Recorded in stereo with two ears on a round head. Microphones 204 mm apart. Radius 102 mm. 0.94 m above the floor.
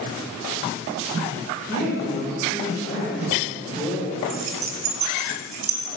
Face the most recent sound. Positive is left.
turn(degrees=-30)  # may be behind; listen again after turning